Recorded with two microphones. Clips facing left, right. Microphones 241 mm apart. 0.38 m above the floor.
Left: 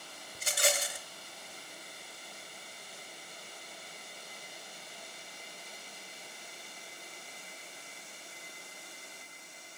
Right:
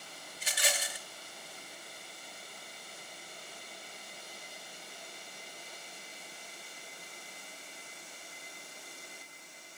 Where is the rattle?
50° left (ahead or behind), 0.7 m.